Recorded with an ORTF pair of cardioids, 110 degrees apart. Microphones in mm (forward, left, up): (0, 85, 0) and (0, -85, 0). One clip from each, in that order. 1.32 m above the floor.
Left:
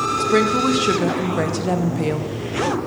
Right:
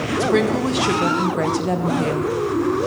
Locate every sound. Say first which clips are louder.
0.2 s a woman speaking: even; 5° left, 0.7 m